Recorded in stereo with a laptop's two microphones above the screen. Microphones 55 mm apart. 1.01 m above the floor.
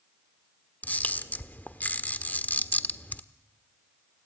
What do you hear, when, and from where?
0.8 s a camera shutter: 30° left (ahead or behind), 1.2 m